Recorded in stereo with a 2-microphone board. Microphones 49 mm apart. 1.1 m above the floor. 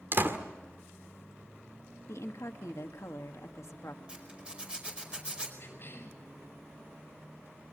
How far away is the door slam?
About 2 m.